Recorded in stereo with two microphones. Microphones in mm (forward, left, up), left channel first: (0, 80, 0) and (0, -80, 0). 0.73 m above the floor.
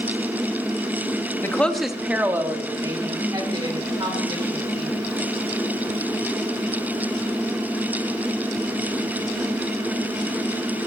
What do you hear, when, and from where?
1.4 s a woman speaking: 15° left (ahead or behind), 0.8 m; by 4.9 s 30° right (ahead or behind), 3 m